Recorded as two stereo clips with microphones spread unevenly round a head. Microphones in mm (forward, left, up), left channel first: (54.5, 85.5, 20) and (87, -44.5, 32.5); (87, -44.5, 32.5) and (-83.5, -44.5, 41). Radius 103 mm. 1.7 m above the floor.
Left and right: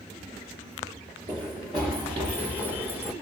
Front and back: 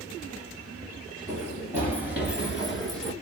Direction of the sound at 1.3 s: 115° right.